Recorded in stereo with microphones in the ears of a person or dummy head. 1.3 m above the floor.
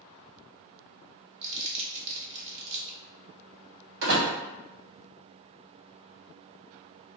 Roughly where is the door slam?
Right.